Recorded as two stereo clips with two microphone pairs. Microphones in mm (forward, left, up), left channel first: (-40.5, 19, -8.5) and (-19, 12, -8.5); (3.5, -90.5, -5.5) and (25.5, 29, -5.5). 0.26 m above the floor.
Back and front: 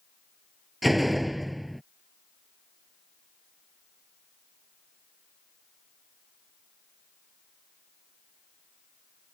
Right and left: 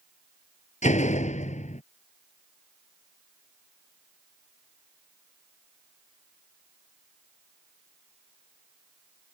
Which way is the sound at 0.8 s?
110° right.